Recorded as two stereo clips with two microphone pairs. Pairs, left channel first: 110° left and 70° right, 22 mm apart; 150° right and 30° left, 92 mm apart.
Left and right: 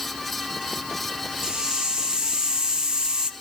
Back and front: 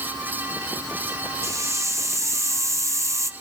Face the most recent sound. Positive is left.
turn(degrees=-20)